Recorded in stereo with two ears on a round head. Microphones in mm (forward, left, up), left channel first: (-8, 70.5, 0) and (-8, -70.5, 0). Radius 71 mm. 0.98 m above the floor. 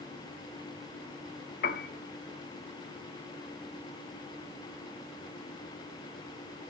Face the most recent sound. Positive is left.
turn(degrees=60)  # may be behind; listen again after turning